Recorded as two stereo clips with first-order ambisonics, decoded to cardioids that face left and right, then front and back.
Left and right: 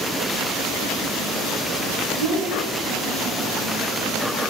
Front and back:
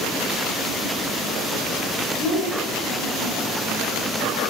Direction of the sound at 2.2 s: 20° right.